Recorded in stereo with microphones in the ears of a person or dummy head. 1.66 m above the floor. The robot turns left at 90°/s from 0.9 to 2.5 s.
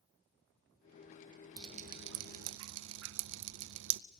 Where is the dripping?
20° right (ahead or behind), 0.5 m; by 4.0 s 70° right (ahead or behind), 0.5 m.